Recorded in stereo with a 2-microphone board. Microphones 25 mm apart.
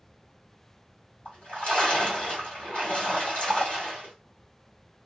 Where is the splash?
50° left (ahead or behind), 1.7 m.